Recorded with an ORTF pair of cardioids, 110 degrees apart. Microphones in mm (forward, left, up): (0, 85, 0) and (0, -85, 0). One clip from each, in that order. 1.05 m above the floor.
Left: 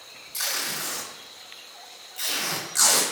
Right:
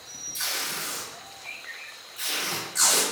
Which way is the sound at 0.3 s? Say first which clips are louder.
Left 2 dB; 40° left.